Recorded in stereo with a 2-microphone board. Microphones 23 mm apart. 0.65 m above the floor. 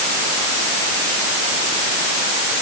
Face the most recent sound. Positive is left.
No sound to turn to.